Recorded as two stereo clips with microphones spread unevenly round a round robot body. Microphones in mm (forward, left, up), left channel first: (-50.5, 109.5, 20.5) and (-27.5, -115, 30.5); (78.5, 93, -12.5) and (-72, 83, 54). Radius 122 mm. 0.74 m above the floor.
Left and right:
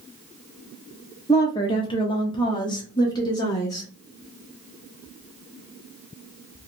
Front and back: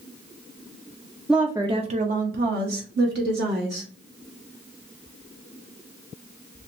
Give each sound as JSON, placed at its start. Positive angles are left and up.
{"t": 1.3, "sound": "a woman speaking", "azimuth_deg": 40, "distance_m": 0.5}